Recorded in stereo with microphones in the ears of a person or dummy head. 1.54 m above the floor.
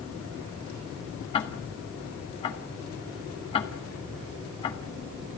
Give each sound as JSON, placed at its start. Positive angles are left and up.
{"t": 1.3, "sound": "ticking", "side_deg": 25, "distance_m": 1.6}